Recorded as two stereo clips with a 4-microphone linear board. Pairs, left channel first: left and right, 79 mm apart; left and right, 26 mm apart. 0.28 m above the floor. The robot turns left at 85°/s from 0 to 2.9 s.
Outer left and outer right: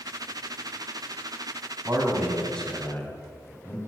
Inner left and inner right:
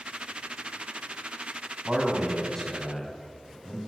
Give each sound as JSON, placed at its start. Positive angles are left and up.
{"t": 1.9, "sound": "a man speaking", "side_deg": -40, "distance_m": 2.5}